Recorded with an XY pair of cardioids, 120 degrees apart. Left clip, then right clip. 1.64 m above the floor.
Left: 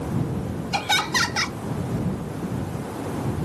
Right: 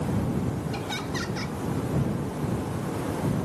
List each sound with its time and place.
0.7 s laughter: 70° left